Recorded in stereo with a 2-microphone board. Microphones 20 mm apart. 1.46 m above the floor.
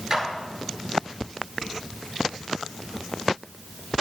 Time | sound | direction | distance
0.1 | a clap | 25° right (ahead or behind) | 7.5 m